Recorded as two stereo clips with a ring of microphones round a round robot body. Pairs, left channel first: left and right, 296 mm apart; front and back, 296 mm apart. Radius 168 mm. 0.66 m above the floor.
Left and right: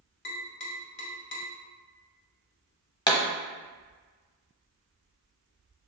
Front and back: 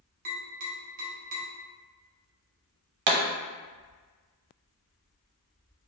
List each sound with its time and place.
0.2 s tapping: 125° left, 1.1 m
3.1 s a pop: 165° left, 0.7 m